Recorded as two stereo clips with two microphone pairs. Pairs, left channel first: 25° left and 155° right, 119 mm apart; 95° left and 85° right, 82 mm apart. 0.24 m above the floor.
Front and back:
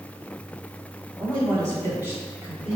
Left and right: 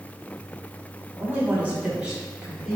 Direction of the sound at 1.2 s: 130° right.